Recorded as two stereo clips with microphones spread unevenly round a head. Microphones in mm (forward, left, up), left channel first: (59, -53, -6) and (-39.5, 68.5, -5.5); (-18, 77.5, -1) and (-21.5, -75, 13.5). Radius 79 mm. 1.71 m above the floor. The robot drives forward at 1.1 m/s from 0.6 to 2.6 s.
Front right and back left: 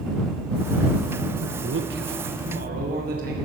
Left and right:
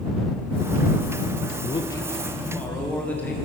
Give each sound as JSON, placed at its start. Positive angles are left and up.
{"t": 1.6, "sound": "a man speaking", "azimuth_deg": 145, "distance_m": 0.6}